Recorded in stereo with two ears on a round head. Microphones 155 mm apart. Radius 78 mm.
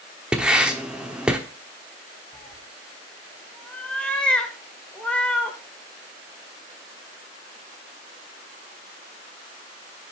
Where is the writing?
5° right (ahead or behind), 1.0 m.